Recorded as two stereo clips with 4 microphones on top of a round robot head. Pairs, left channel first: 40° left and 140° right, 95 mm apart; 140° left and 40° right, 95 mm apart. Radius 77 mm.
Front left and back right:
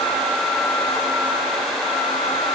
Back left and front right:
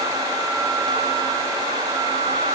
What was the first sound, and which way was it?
Only background noise.